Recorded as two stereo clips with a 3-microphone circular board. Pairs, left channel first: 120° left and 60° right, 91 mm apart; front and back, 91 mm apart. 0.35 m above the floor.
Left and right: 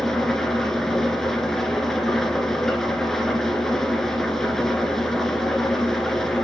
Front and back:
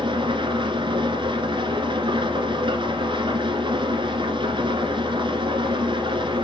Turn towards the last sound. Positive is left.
turn(degrees=-155)